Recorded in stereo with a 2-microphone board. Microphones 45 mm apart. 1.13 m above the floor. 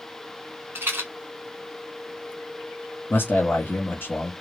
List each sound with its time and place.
0.8 s a rattle: 55° right (ahead or behind), 1.2 m
3.1 s a man speaking: 55° left (ahead or behind), 0.8 m